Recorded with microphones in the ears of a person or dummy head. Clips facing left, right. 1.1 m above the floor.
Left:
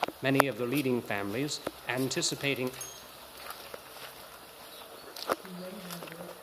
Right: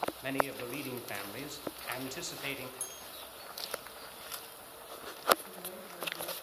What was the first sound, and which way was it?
A man speaking, 55° left (ahead or behind).